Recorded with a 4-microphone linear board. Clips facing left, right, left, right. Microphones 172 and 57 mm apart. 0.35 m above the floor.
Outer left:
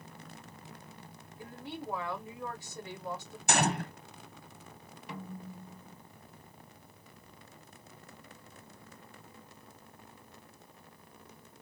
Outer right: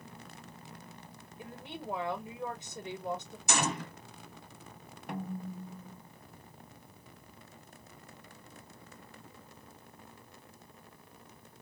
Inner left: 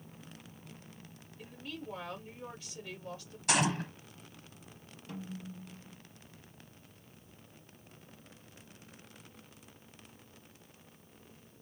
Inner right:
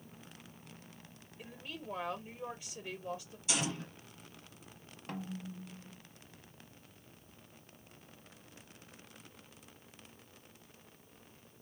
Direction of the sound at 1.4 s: 20° right (ahead or behind).